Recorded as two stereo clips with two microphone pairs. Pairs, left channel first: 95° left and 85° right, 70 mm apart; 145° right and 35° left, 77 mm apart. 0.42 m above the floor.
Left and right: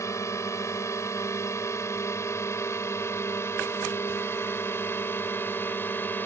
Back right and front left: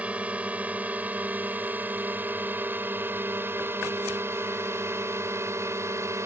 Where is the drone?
105° left; by 6.3 s 55° left.